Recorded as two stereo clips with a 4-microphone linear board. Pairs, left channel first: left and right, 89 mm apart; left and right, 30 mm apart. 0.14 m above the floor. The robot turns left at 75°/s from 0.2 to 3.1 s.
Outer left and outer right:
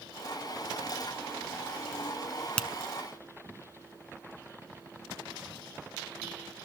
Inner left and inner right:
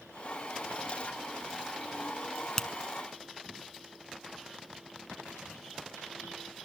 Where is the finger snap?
15° left (ahead or behind), 0.9 m; by 2.7 s 10° left (ahead or behind), 0.9 m.